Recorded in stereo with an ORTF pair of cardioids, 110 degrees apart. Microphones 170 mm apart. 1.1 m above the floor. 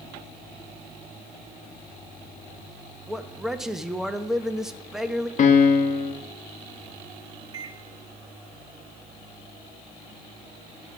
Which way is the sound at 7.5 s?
25° right.